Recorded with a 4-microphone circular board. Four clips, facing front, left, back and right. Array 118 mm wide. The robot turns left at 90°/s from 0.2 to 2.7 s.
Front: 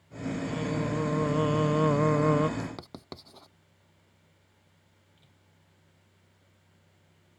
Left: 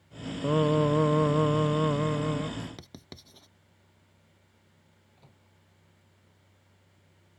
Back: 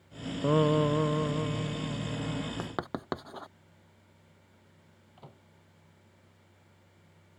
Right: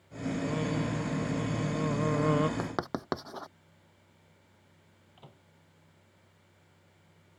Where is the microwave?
160° right.